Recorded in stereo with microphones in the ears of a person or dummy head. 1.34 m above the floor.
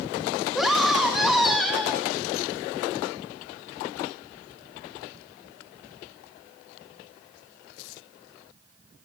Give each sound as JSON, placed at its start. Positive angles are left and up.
{"t": 0.6, "sound": "a scream", "side_deg": -5, "distance_m": 1.9}